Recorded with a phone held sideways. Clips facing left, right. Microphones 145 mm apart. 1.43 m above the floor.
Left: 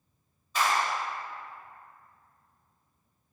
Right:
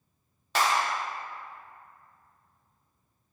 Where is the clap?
85° right, 1.8 m.